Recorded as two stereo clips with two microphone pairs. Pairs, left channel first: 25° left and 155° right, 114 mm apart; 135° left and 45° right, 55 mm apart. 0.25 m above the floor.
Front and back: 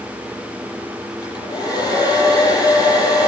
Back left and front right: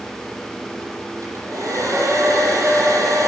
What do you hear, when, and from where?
1.2 s a hair dryer: 30° right, 8.5 m